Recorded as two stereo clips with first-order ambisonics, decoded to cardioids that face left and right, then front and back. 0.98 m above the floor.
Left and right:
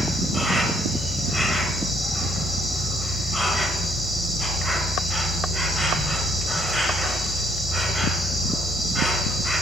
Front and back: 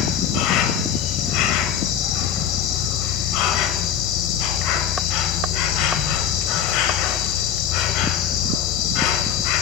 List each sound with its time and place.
0.0 s an insect: straight ahead, 1.0 m